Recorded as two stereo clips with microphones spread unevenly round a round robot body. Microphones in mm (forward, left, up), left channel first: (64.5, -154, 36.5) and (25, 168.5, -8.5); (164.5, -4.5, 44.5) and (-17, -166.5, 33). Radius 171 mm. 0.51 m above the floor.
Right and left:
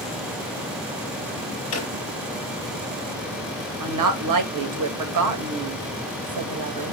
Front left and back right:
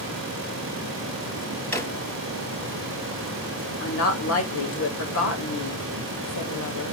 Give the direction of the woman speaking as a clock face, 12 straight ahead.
9 o'clock.